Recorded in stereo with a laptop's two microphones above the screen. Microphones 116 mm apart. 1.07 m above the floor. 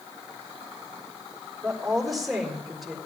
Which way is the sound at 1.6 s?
Centre (ahead or behind).